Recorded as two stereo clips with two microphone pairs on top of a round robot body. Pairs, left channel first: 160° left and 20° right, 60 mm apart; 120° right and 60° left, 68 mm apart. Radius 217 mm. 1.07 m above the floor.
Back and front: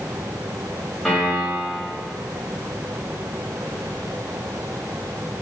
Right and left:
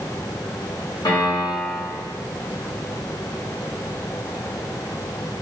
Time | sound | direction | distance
1.1 | a piano | 110° right | 3 m